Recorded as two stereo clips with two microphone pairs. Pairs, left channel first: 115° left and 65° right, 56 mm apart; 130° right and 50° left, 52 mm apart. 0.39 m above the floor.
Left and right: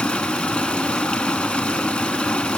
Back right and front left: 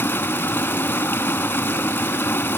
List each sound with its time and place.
0.0 s running water: 175° right, 0.7 m